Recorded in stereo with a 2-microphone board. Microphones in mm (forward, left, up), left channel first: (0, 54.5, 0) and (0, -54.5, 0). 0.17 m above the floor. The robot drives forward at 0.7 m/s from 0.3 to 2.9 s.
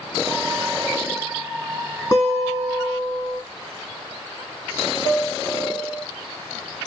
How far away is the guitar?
About 4.5 m.